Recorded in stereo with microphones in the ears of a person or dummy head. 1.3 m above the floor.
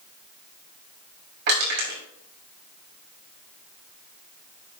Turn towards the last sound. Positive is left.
turn(degrees=-70)  # may be behind; listen again after turning